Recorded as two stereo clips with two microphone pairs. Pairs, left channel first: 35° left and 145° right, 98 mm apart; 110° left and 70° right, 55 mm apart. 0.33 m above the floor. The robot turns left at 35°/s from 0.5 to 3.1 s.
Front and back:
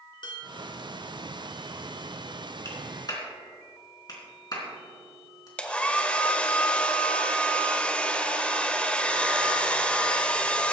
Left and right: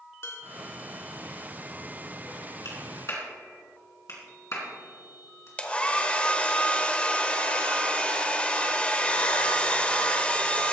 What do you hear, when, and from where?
0.2 s dishes clattering: 70° left, 2.5 m; by 0.7 s 65° left, 2.5 m
2.6 s a clap: 95° left, 3.5 m; by 5.5 s 80° left, 3.5 m
5.6 s a hair dryer: 95° left, 0.9 m